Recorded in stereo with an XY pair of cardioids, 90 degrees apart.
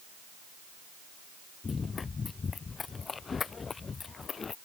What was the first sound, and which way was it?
Running footsteps, 45° left.